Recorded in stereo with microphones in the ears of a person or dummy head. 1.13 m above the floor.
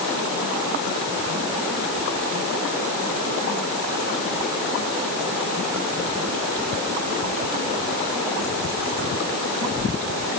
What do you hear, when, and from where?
Only background noise.